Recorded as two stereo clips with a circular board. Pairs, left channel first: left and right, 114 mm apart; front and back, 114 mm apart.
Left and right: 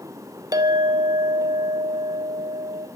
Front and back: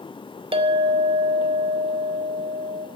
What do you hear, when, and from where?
0.5 s a clink: 145° right, 0.8 m